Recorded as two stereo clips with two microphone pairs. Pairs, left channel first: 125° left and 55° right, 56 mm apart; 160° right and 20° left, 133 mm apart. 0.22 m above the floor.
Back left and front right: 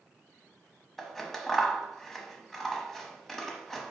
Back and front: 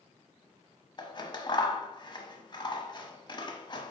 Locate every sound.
1.0 s scissors: 155° right, 0.9 m